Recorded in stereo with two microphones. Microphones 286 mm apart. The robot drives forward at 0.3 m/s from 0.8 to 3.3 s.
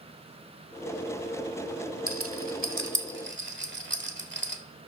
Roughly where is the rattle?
Right.